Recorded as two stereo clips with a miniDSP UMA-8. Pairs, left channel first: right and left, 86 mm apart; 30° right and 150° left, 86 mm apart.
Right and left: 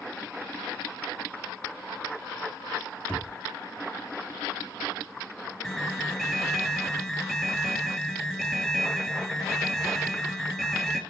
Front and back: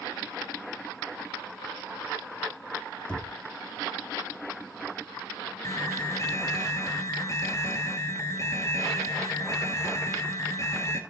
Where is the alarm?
5° right, 1.8 m.